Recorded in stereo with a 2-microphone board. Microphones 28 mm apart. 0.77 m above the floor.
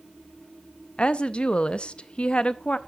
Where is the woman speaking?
40° left (ahead or behind), 0.5 m.